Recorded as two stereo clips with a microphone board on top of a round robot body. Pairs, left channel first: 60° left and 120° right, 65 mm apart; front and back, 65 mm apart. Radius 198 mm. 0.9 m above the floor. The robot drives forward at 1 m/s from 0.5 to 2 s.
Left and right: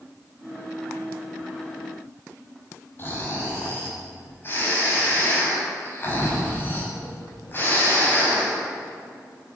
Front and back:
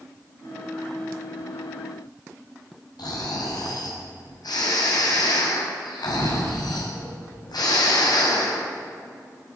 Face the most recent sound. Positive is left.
turn(degrees=5)